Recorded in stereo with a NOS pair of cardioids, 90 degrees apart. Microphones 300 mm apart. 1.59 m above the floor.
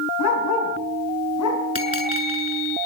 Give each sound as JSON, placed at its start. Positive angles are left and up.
{"t": 0.2, "sound": "a dog barking", "azimuth_deg": 65, "distance_m": 6.0}
{"t": 1.8, "sound": "a bell", "azimuth_deg": 25, "distance_m": 7.0}